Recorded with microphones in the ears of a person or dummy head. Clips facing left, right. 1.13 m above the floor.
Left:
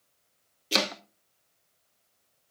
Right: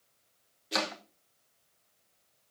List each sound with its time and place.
0.7 s chopping: 40° left (ahead or behind), 1.0 m